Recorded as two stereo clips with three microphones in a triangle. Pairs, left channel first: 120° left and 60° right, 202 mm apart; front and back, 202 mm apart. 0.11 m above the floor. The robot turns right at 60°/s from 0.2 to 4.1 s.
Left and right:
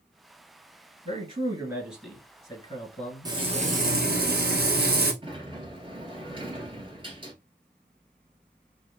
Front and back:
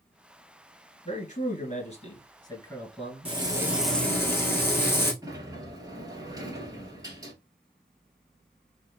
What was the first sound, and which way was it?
A man speaking, 30° right.